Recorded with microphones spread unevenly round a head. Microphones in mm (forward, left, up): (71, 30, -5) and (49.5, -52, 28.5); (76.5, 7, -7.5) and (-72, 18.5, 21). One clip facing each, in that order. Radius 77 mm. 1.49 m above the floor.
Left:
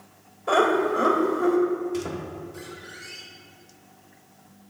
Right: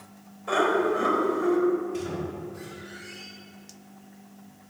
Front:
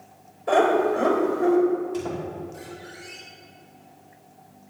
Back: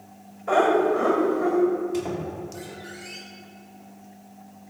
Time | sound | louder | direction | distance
0.5 | laughter | left 3 dB, even | 45° left | 2 m
1.9 | a squeak | left 1 dB, back 1 dB | 105° left | 2.5 m